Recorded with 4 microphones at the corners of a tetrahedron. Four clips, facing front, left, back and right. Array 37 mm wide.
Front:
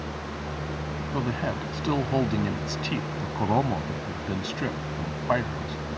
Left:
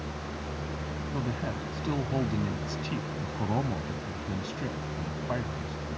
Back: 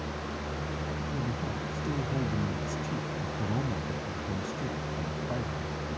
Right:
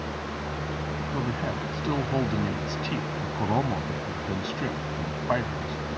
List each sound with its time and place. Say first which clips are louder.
1.1 s a man speaking: right 3 dB, front 5 dB; 15° right; by 5.8 s 30° right